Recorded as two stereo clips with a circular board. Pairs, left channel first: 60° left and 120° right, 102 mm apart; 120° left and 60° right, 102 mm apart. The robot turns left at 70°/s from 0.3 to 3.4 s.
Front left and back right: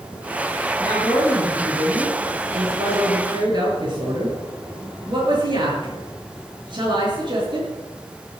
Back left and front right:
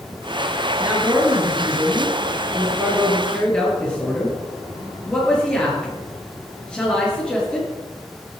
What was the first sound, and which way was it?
A man speaking, 20° left.